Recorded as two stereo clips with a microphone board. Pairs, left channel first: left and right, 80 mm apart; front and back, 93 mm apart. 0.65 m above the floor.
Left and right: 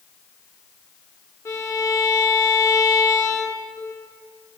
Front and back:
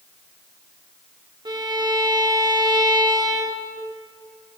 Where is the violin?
140° left, 0.7 m.